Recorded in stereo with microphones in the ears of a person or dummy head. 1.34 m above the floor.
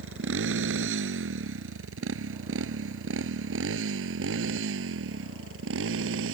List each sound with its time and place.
0.0 s a motorcycle: 80° right; by 6.3 s 85° right